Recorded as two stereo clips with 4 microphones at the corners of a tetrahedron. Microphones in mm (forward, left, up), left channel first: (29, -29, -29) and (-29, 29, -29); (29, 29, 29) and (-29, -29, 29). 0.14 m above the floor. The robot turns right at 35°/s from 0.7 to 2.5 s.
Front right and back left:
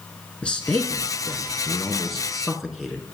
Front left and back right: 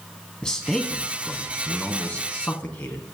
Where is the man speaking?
10° right, 1.1 m; by 3.0 s 55° left, 1.1 m.